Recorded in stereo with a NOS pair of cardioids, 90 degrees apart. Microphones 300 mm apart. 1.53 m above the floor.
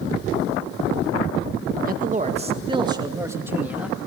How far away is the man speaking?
About 1.7 m.